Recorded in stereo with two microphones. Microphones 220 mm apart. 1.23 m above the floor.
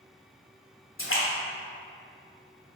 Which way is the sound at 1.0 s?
70° left (ahead or behind).